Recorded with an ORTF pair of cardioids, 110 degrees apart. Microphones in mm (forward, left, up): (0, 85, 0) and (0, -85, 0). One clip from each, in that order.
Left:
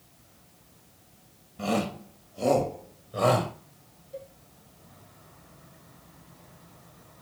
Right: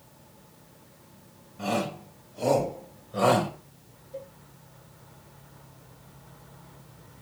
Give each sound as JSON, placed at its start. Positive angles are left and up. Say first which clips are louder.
{"t": 1.6, "sound": "a shout", "louder": "even", "azimuth_deg": 15, "distance_m": 6.5}
{"t": 4.1, "sound": "a cowbell", "louder": "right 1 dB", "azimuth_deg": 25, "distance_m": 6.5}